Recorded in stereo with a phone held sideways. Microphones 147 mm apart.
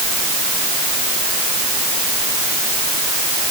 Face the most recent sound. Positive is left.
No sound to turn to.